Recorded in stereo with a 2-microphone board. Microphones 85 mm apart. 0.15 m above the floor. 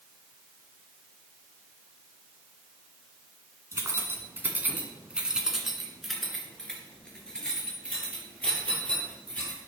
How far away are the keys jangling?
About 1.2 m.